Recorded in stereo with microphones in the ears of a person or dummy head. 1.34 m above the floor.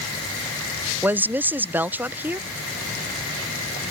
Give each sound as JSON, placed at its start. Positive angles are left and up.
{"t": 1.0, "sound": "a woman speaking", "side_deg": -15}